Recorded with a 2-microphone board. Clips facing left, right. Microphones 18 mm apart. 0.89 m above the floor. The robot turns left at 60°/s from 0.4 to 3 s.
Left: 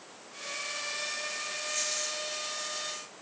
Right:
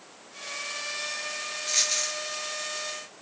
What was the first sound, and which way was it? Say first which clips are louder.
A dropped coin: right 9 dB; 60° right (ahead or behind).